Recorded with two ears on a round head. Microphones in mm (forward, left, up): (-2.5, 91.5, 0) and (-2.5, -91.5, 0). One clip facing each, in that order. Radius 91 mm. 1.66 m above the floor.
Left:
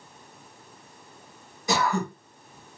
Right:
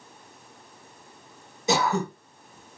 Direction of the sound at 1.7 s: 20° right (ahead or behind).